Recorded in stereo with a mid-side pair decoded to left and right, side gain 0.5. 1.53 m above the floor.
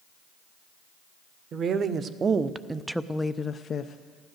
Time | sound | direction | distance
1.5 | a woman speaking | 55° right | 1.0 m